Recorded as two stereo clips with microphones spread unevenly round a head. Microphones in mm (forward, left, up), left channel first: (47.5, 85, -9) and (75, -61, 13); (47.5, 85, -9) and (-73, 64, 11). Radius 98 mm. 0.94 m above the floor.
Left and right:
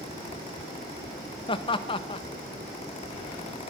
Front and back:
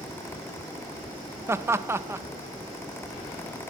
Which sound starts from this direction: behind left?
Laughter, at 1.5 s.